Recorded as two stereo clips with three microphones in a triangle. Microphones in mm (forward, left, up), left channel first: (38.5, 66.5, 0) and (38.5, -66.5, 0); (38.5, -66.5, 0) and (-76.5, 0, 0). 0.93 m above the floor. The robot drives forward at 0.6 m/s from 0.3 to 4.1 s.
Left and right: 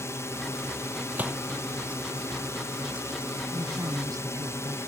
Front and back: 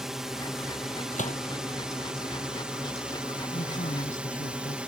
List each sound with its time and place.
0.0 s a drone: 70° left; by 4.9 s 85° left
1.1 s a gunshot: 15° right
3.5 s a woman speaking: 25° right